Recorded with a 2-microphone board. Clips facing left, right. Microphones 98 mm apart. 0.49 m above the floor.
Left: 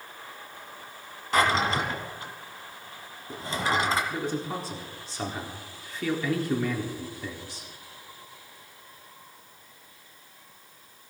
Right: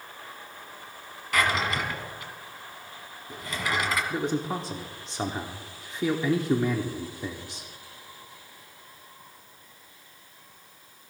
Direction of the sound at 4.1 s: 20° right (ahead or behind).